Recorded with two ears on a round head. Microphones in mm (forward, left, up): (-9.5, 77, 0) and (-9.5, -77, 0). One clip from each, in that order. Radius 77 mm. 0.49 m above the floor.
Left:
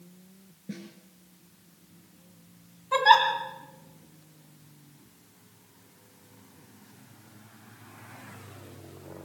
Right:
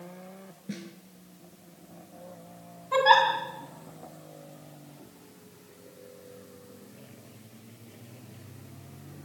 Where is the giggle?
20° left (ahead or behind), 3 m.